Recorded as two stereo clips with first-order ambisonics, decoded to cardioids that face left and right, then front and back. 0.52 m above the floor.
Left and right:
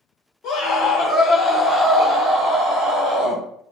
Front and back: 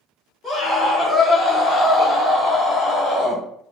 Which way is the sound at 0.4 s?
85° left.